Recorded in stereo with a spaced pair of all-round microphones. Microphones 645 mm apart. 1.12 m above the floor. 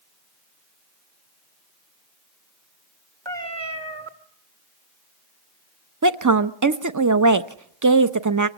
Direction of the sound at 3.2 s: 45° right (ahead or behind).